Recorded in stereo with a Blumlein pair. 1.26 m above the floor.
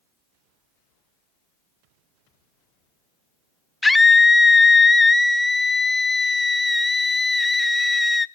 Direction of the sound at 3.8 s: 10° left.